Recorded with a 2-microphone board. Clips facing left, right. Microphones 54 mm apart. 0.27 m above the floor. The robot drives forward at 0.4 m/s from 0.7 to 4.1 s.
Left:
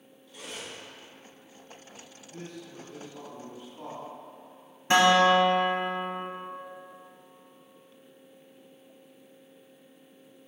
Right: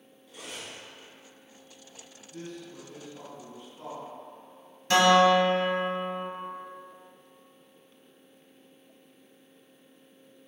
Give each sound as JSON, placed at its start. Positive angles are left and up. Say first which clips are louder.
{"t": 0.3, "sound": "cutlery clinking", "louder": "left 1 dB", "side_deg": -10, "distance_m": 1.5}
{"t": 2.3, "sound": "a man speaking", "louder": "right 1 dB", "side_deg": 30, "distance_m": 1.0}
{"t": 4.9, "sound": "a guitar", "louder": "even", "side_deg": 25, "distance_m": 0.6}